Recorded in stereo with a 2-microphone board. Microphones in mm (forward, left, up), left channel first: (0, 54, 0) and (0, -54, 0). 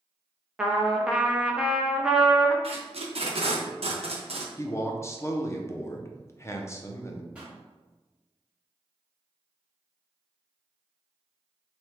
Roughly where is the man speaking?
Left.